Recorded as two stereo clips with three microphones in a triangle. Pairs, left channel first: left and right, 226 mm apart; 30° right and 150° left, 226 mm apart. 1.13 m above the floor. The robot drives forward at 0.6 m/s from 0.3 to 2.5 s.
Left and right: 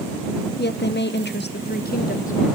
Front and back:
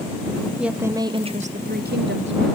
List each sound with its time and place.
0.6 s a woman speaking: 65° left, 1.0 m; by 2.5 s 140° left, 1.2 m